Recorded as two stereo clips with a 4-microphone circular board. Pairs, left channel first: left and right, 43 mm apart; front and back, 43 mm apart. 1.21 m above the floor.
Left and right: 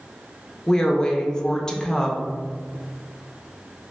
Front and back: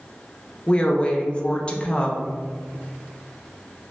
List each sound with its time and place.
0.7 s a woman speaking: 35° left, 0.5 m